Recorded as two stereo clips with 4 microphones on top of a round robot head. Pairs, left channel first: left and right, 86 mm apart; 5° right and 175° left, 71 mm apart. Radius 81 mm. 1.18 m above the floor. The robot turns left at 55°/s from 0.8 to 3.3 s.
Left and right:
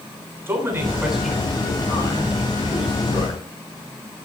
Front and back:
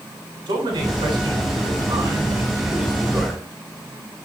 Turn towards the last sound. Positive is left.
turn(degrees=70)